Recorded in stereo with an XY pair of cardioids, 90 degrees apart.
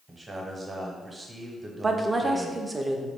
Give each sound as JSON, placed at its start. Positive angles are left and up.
{"t": 0.1, "sound": "a man speaking", "azimuth_deg": -25, "distance_m": 1.0}
{"t": 1.8, "sound": "a woman speaking", "azimuth_deg": -30, "distance_m": 0.6}